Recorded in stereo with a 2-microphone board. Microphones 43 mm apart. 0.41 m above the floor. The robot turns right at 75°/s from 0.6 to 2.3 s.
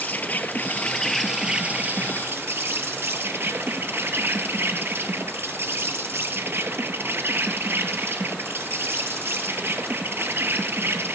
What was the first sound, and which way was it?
An insect, 130° left.